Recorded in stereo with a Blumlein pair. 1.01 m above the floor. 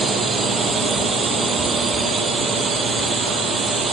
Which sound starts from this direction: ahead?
A drone, at 0.0 s.